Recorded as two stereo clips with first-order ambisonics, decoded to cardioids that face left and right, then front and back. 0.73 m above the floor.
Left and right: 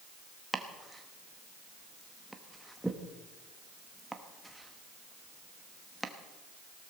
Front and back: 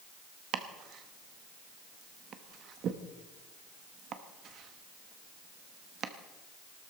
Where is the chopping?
175° right, 1.0 m.